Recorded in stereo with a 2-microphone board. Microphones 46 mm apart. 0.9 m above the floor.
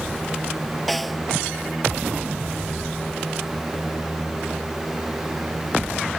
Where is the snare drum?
Centre (ahead or behind).